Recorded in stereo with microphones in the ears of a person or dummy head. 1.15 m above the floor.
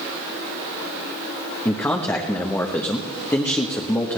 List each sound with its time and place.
1.6 s a man speaking: 20° left (ahead or behind), 0.9 m